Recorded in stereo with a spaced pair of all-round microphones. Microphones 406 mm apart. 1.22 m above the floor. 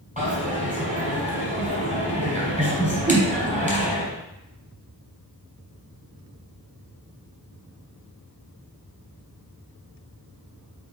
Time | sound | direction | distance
0.2 | a dropped coin | 20° right (ahead or behind) | 3.5 m
3.1 | a whoosh | 45° right (ahead or behind) | 3.5 m